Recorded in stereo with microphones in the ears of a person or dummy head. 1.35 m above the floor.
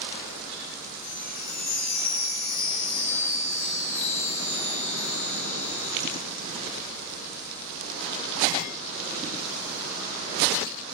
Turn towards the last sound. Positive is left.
turn(degrees=75)  # may be behind; listen again after turning